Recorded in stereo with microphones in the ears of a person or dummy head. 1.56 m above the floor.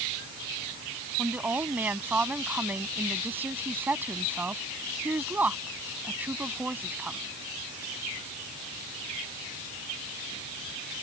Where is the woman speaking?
5° right (ahead or behind).